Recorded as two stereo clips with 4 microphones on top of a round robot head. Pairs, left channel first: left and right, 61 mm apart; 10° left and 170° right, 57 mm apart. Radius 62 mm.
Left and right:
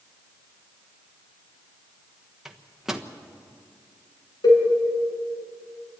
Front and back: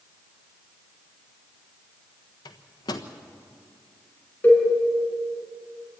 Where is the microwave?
5° right, 1.2 m.